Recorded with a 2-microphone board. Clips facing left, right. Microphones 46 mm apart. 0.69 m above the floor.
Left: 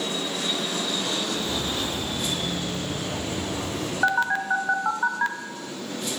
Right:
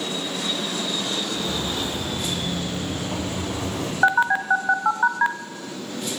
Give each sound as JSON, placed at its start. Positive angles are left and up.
{"t": 1.3, "sound": "footsteps", "side_deg": -55, "distance_m": 4.5}
{"t": 4.0, "sound": "a phone buzzing", "side_deg": -20, "distance_m": 0.5}